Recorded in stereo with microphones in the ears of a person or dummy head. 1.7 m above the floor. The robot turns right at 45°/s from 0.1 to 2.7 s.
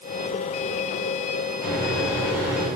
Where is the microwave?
150° left, 3 m; by 2.7 s 160° right, 3 m.